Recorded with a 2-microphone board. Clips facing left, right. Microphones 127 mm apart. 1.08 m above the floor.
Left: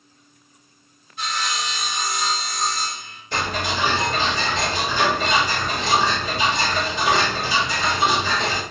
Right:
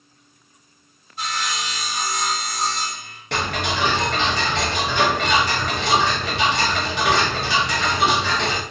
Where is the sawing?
40° right (ahead or behind), 1.3 m.